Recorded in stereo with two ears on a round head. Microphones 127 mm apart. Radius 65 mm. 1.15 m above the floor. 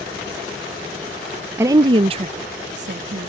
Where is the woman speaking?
15° right (ahead or behind); by 3.3 s 55° right (ahead or behind).